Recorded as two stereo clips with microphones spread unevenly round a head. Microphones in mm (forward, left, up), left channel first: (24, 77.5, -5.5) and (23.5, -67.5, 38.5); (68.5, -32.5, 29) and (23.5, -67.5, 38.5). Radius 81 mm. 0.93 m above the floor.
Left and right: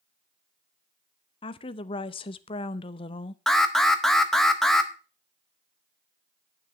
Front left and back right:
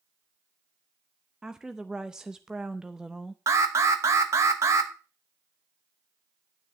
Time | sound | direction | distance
1.4 | a woman speaking | 135° left | 0.5 m
3.5 | an alarm | 170° left | 0.7 m